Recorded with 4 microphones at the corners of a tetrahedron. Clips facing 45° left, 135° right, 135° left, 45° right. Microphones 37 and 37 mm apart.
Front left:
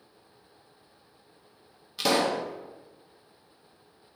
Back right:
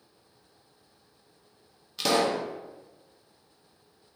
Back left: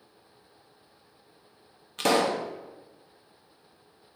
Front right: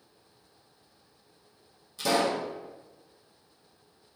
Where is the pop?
130° left, 0.5 m.